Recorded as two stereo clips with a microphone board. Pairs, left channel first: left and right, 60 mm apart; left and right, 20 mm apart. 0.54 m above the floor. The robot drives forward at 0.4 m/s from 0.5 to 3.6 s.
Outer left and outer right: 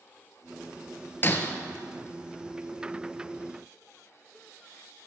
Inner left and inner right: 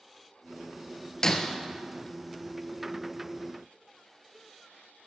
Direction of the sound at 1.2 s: 35° left (ahead or behind).